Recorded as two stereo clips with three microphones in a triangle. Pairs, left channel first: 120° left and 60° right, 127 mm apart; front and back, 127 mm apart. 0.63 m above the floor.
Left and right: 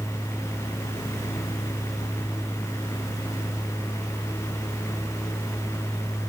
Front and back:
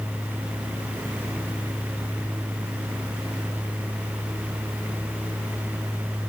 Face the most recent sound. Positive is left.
No sound to turn to.